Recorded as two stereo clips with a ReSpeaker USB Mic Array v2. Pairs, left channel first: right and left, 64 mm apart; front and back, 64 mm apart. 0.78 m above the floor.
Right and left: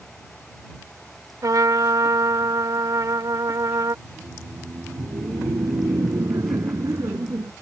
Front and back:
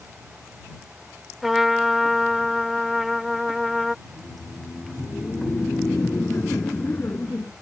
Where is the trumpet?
95° left.